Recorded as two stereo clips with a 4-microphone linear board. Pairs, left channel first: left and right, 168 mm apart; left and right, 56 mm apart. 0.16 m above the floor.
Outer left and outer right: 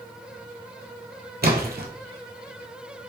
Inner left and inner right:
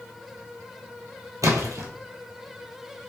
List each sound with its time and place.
1.4 s a splash: 70° right (ahead or behind), 1.0 m